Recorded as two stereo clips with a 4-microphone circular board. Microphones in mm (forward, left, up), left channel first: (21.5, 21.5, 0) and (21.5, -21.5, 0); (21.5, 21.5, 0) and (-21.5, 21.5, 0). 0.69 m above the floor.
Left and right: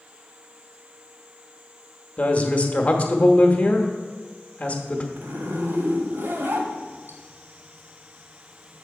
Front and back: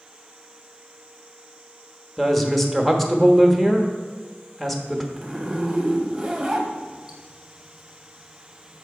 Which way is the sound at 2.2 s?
85° left.